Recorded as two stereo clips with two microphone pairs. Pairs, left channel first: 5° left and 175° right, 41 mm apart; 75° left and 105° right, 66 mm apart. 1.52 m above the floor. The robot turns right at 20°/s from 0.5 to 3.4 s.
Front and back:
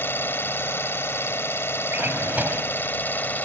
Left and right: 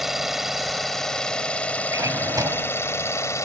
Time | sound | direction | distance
0.0 | an engine running | 15° right | ?
1.9 | a drawer | 140° right | ?